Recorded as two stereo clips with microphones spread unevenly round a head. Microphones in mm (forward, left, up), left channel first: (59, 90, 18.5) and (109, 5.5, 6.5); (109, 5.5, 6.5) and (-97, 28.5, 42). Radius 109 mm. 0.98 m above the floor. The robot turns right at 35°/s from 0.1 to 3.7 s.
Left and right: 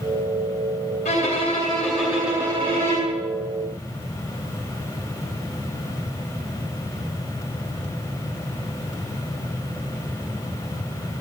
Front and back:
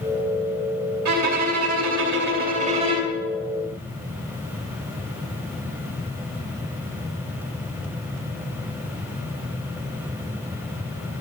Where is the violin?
175° left, 2 m; by 3.2 s 110° right, 2 m.